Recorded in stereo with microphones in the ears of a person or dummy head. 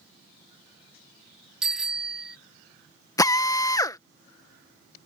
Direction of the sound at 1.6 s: Centre (ahead or behind).